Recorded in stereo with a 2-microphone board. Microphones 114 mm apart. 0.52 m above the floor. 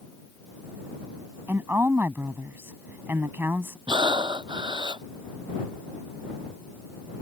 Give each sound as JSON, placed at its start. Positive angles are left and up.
{"t": 1.5, "sound": "a woman speaking", "side_deg": -20}
{"t": 3.9, "sound": "breathing", "side_deg": -40}